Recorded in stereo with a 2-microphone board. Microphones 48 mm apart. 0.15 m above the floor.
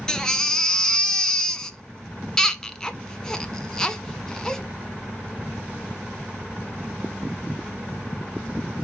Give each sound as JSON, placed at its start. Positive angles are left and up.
{"t": 0.1, "sound": "a baby crying", "side_deg": 15, "distance_m": 0.7}